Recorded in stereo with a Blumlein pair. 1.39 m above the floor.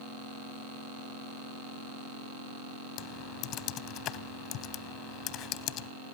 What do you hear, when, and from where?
3.0 s typing on a keyboard: 35° left, 0.5 m